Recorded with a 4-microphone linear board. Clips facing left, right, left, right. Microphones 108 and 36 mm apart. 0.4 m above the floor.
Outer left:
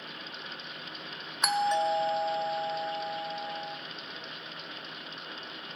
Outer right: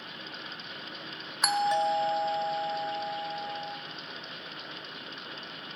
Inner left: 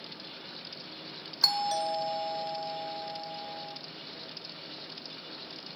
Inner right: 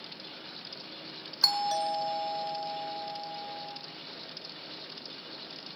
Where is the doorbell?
Centre (ahead or behind), 1.7 m.